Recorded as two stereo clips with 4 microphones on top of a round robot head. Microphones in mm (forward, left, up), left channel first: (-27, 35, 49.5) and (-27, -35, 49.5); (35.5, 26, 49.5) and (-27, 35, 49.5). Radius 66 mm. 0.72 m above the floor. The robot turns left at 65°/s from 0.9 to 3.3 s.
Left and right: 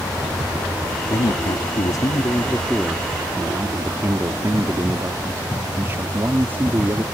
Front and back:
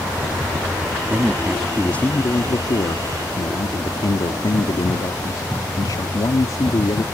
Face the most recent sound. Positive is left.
turn(degrees=-30)